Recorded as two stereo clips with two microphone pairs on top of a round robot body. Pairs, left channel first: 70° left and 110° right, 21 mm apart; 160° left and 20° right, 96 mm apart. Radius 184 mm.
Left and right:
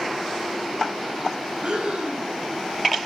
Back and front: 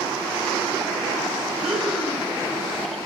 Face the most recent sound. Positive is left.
turn(degrees=-105)